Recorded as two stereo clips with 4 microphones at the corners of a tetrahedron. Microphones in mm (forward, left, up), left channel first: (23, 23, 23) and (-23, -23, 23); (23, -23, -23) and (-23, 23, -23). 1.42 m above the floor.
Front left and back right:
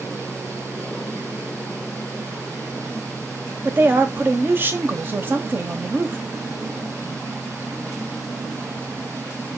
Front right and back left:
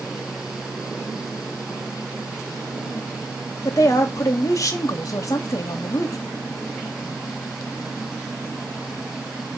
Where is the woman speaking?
75° right, 0.5 m.